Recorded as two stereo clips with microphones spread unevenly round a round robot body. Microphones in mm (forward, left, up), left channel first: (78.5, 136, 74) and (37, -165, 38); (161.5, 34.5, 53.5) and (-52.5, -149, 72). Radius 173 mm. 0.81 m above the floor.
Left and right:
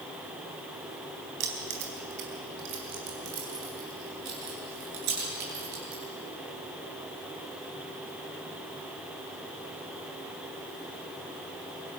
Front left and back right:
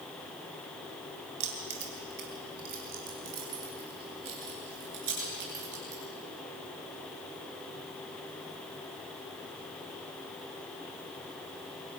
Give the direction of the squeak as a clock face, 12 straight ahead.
I don't hear a squeak.